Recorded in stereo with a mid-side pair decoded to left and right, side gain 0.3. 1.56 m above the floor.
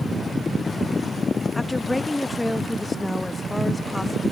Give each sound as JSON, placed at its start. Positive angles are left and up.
{"t": 1.6, "sound": "a woman speaking", "azimuth_deg": 25}